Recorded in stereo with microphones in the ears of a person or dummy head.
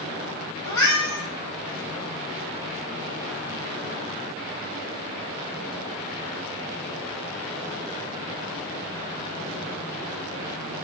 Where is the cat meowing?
10° left (ahead or behind), 1.0 m.